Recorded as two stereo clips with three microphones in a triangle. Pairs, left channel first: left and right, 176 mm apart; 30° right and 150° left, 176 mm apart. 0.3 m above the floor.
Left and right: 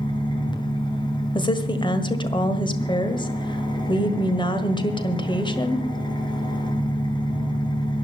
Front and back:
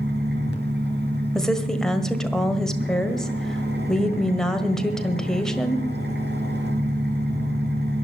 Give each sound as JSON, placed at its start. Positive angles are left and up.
{"t": 0.0, "sound": "an engine running", "azimuth_deg": 155, "distance_m": 2.5}
{"t": 1.4, "sound": "a woman speaking", "azimuth_deg": 55, "distance_m": 1.5}